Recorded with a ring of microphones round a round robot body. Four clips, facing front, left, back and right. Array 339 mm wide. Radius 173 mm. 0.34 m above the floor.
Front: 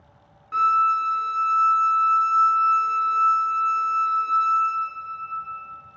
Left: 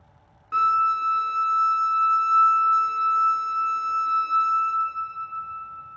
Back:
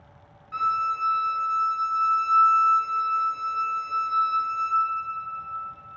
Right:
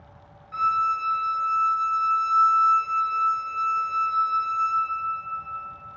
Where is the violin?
60° left, 0.8 m.